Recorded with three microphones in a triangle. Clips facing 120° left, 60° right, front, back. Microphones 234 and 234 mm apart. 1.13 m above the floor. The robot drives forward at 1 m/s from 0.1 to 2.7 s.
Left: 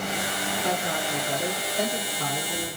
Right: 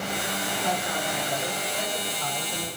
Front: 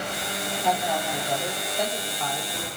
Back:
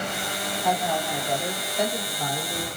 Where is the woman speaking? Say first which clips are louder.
Left 2 dB, back 1 dB; 85° left, 3.5 m; by 2.7 s 120° left, 4 m.